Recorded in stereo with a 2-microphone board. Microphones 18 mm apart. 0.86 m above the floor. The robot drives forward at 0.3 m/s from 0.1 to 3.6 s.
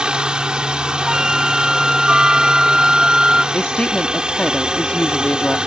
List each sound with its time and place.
0.0 s a helicopter: 55° right (ahead or behind)
1.1 s a flute: 35° right (ahead or behind); by 3.4 s 30° right (ahead or behind)
3.5 s a woman speaking: 65° left (ahead or behind)